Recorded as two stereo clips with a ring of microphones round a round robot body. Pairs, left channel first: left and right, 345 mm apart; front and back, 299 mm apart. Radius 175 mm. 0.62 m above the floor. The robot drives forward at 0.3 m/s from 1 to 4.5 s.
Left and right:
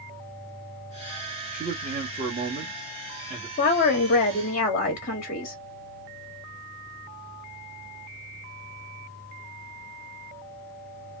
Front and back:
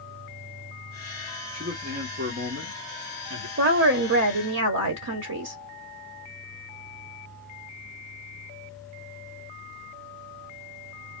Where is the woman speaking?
145° left, 0.9 m; by 5.6 s 155° left, 1.1 m.